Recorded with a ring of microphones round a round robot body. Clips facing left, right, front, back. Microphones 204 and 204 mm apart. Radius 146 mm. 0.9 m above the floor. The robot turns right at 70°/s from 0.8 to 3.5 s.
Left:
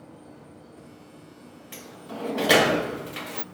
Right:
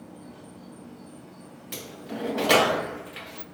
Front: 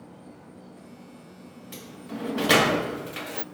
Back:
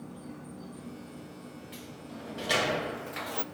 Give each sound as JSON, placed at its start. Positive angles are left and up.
{"t": 0.0, "sound": "an insect", "azimuth_deg": -120, "distance_m": 4.0}
{"t": 1.7, "sound": "a sliding door", "azimuth_deg": -45, "distance_m": 0.7}